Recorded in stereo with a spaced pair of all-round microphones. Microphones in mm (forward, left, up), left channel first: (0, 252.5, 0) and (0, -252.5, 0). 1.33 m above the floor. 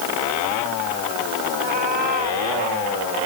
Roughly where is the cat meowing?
Right.